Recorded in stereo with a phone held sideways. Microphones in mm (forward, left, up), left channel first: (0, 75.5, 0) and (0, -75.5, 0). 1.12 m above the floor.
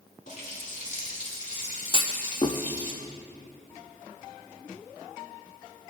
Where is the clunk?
35° left (ahead or behind), 0.6 m.